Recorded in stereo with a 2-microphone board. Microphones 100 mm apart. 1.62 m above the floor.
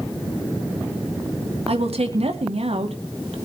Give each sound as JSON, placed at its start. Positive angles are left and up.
{"t": 1.7, "sound": "a woman speaking", "side_deg": -85, "distance_m": 2.0}